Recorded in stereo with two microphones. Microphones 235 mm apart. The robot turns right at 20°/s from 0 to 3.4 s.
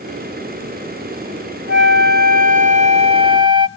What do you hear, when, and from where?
1.7 s a flute: 55° right, 0.5 m; by 3.7 s 20° right, 0.5 m